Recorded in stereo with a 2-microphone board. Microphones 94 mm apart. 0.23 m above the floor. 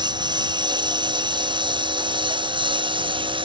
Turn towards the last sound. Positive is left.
turn(degrees=-60)  # may be behind; listen again after turning